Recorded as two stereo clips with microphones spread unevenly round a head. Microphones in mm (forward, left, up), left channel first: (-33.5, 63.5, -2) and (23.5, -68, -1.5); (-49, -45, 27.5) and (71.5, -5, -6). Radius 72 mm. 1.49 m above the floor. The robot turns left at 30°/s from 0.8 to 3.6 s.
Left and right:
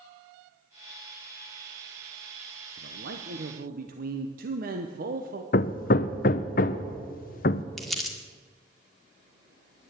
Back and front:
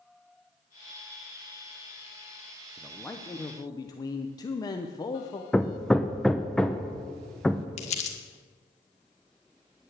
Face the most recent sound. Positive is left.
turn(degrees=-160)